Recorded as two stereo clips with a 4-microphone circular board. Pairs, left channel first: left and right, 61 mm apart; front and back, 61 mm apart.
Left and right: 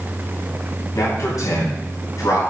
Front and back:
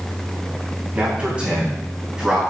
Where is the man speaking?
110° left, 4 m; by 2.4 s 100° left, 4 m.